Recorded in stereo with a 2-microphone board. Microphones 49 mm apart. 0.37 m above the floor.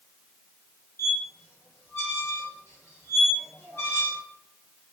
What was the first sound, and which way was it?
A squeak, 65° left (ahead or behind).